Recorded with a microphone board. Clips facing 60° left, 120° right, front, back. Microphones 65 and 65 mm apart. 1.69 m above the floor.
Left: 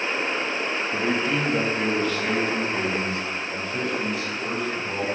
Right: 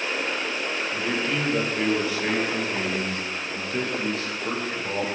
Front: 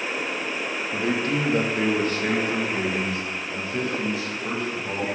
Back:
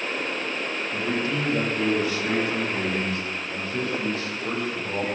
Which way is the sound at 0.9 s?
5° left.